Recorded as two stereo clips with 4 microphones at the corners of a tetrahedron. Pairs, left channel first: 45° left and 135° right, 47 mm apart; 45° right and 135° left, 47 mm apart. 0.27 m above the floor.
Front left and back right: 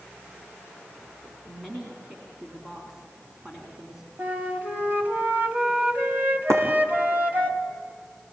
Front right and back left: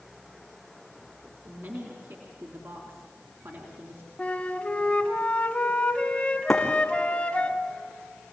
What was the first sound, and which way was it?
A woman speaking, 140° left.